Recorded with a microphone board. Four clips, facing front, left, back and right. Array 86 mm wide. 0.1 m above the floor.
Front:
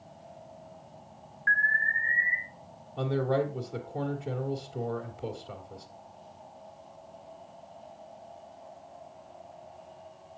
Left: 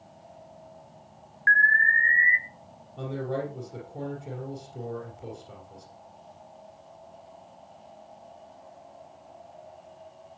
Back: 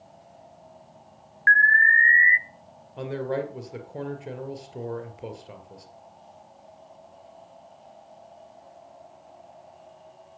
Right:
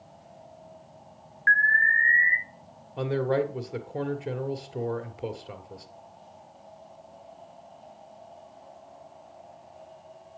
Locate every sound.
1.5 s an alarm: 175° left, 1.1 m
3.0 s a man speaking: 110° right, 2 m